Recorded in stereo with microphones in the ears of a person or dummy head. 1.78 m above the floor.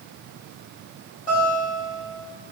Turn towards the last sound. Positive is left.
turn(degrees=40)  # may be behind; listen again after turning